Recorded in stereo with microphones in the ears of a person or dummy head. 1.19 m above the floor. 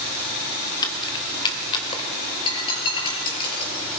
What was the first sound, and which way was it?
Keys jangling, 20° left (ahead or behind).